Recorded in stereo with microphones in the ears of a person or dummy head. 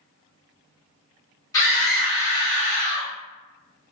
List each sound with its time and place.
1.5 s a scream: 20° left (ahead or behind), 0.9 m; by 3.1 s 40° right (ahead or behind), 1.0 m